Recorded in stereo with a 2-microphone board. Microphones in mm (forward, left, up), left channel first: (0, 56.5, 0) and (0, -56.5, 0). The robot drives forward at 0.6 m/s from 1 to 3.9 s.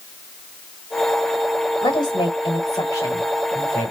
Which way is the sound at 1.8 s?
45° left (ahead or behind).